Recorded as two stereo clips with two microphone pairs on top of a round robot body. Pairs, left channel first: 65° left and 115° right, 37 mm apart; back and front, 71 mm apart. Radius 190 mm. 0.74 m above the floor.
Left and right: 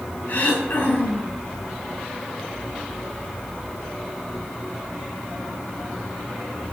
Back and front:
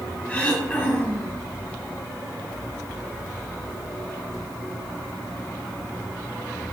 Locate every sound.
0.3 s throat clearing: 105° left, 3.5 m